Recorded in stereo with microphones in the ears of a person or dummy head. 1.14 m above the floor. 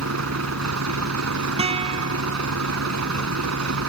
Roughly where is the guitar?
Right.